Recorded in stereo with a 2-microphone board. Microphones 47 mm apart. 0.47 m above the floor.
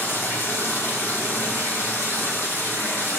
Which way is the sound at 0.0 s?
65° left (ahead or behind).